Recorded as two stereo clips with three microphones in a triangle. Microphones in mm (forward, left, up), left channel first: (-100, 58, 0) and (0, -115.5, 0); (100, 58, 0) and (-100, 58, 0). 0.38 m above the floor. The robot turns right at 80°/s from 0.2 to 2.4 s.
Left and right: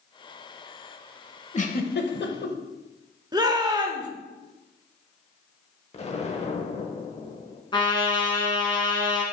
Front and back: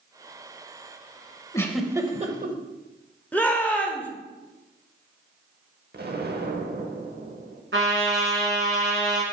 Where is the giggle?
70° left, 0.7 m; by 2.6 s 140° left, 0.7 m.